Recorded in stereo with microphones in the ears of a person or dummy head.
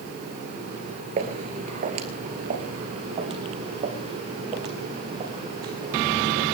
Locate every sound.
1.2 s footsteps: 35° right (ahead or behind), 2 m; by 6.4 s 25° right (ahead or behind), 4 m